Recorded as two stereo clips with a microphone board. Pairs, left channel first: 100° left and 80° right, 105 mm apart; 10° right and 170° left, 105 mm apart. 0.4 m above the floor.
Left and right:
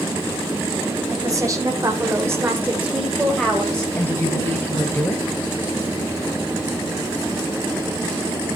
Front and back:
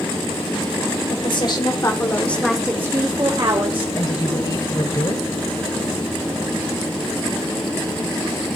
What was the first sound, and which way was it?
A woman speaking, 30° right.